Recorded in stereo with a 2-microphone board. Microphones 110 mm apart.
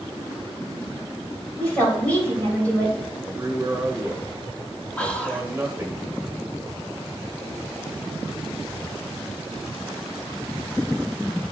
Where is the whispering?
10° left (ahead or behind), 0.9 m.